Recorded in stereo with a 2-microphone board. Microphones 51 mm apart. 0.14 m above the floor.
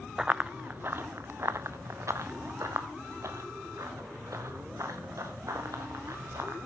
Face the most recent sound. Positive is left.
turn(degrees=-75)  # may be behind; listen again after turning